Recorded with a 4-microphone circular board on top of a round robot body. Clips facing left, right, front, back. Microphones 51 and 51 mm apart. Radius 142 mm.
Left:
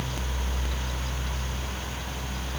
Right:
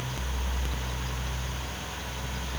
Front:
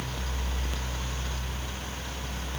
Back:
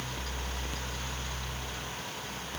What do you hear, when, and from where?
Only background noise.